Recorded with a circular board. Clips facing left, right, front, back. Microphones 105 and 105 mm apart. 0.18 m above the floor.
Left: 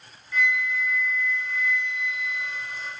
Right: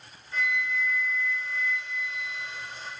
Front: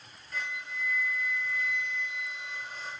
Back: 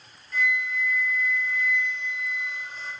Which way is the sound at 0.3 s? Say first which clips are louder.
Left 4 dB, back 10 dB; 35° right.